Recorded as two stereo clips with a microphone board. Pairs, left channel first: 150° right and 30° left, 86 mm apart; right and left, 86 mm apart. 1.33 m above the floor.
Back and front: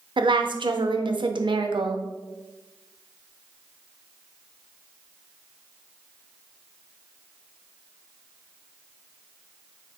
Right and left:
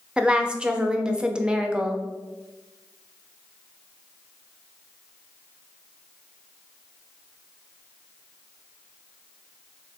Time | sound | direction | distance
0.2 | a woman speaking | 10° left | 0.5 m